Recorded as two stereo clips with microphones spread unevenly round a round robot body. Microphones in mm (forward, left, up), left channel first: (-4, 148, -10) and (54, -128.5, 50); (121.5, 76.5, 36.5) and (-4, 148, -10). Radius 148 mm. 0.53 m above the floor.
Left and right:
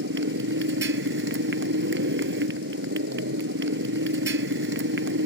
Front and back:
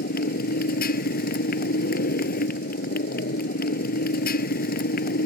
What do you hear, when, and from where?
0.0 s a motorcycle: 30° right